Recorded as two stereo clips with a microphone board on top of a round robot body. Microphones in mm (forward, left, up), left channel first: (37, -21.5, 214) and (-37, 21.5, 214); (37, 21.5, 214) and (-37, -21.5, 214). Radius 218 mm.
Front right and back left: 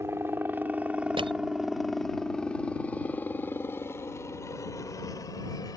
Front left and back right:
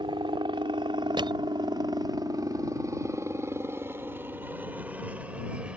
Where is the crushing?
175° left.